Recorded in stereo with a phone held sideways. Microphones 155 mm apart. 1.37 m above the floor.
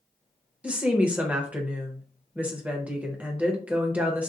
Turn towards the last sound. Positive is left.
turn(degrees=-10)  # may be behind; listen again after turning